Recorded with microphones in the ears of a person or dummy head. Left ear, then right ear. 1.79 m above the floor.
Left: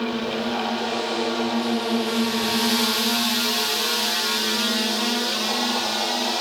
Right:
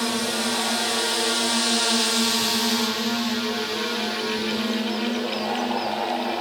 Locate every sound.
0.0 s a drone: 70° right (ahead or behind); by 6.4 s 60° left (ahead or behind)